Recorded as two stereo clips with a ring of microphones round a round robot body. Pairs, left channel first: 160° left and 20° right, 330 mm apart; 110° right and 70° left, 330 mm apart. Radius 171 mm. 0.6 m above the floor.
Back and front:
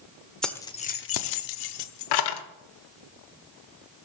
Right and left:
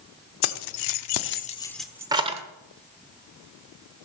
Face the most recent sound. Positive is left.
turn(degrees=140)